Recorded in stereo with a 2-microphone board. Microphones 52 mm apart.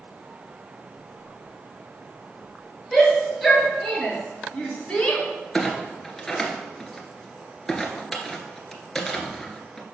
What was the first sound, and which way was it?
A shout, centre (ahead or behind).